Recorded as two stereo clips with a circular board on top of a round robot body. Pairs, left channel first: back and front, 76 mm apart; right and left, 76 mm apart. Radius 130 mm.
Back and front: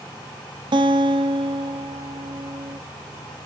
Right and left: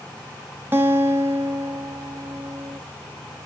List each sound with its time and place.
0.7 s a guitar: 25° left, 0.9 m